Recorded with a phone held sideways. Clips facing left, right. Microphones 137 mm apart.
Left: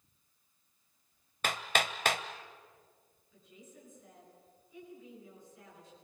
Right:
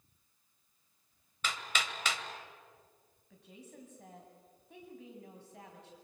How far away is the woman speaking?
About 7.5 m.